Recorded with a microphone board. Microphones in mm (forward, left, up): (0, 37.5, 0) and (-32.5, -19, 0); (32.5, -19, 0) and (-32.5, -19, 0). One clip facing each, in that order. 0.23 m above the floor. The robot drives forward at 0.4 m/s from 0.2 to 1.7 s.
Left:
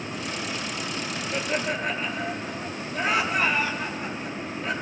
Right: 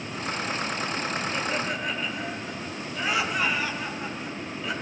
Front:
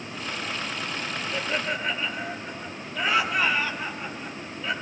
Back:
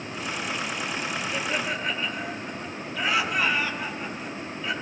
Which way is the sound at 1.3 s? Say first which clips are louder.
Left 1 dB, front 2 dB; 105° left.